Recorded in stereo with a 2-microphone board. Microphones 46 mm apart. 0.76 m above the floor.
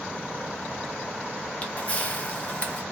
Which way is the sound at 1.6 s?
30° left (ahead or behind).